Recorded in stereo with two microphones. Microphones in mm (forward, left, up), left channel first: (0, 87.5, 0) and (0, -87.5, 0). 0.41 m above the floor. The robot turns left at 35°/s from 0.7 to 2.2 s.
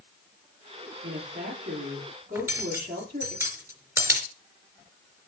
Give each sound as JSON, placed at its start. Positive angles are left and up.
{"t": 1.0, "sound": "a woman speaking", "azimuth_deg": -90, "distance_m": 9.5}
{"t": 2.4, "sound": "cutlery clinking", "side_deg": -15, "distance_m": 3.5}